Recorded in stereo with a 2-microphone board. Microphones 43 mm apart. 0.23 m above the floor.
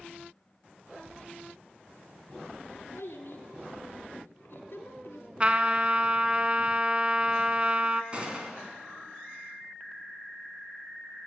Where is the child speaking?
65° left (ahead or behind), 1.6 m.